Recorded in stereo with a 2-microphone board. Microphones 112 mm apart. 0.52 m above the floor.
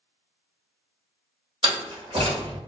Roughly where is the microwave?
I don't hear a microwave.